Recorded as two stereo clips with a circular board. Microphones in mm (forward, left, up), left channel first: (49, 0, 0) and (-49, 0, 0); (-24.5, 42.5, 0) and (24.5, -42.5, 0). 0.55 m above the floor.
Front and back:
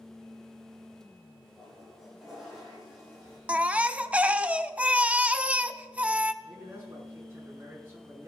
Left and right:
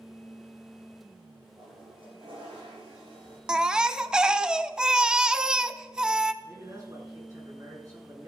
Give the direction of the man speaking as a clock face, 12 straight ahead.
4 o'clock.